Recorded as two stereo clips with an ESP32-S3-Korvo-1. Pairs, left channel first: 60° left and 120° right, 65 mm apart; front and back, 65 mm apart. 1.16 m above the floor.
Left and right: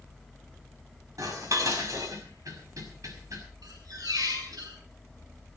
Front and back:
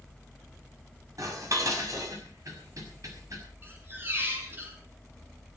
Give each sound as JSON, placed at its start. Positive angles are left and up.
{"t": 1.2, "sound": "dishes clattering", "azimuth_deg": -150, "distance_m": 5.5}
{"t": 3.6, "sound": "a squeak", "azimuth_deg": -125, "distance_m": 6.5}